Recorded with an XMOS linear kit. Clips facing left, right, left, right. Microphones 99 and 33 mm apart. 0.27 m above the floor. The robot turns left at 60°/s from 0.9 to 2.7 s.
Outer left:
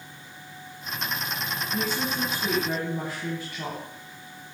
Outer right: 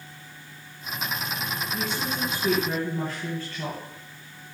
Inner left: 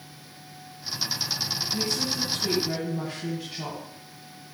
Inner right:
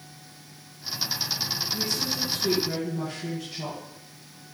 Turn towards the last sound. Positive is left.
turn(degrees=15)